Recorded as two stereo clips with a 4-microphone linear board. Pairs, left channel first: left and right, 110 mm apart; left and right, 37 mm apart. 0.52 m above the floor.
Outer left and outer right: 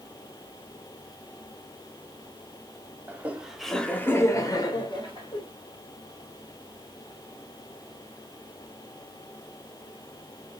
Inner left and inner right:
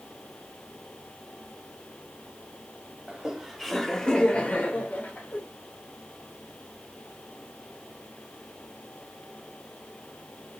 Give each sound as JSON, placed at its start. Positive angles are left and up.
{"t": 3.1, "sound": "laughter", "side_deg": -20, "distance_m": 1.0}